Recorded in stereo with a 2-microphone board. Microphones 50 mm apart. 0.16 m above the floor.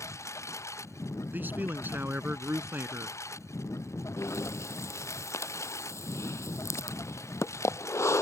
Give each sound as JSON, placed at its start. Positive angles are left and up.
{"t": 0.0, "sound": "a lawn mower", "side_deg": 80}
{"t": 1.3, "sound": "a man speaking", "side_deg": -40}
{"t": 4.2, "sound": "breathing", "side_deg": 80}